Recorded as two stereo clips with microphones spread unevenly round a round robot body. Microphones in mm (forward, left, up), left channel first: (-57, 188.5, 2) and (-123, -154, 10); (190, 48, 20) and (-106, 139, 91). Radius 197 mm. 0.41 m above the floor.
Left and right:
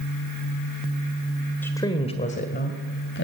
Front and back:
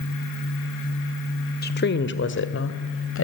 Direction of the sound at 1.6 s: Straight ahead.